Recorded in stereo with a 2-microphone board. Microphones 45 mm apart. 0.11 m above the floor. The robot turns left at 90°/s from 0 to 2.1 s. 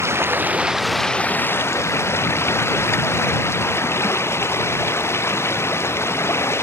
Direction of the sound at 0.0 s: 100° right.